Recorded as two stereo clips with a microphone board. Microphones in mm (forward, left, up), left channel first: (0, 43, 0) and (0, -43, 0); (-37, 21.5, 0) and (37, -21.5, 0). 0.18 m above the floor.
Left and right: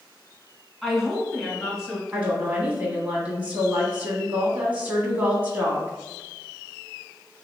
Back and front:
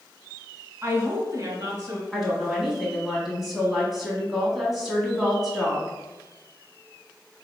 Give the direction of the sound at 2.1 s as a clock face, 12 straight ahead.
4 o'clock.